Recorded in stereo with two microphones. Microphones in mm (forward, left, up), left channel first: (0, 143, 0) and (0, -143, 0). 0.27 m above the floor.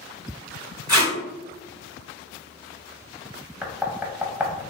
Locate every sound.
0.9 s tape being pulled: 65° right (ahead or behind), 1.2 m
3.6 s knocking: 5° right (ahead or behind), 0.8 m